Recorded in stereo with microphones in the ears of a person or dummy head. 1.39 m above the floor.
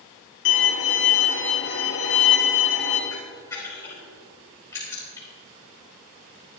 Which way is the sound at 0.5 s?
60° left (ahead or behind).